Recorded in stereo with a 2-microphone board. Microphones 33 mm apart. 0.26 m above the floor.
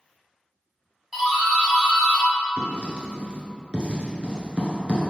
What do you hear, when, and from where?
1.1 s a doorbell: 10° right (ahead or behind), 1.5 m
2.6 s writing: 35° right (ahead or behind), 1.0 m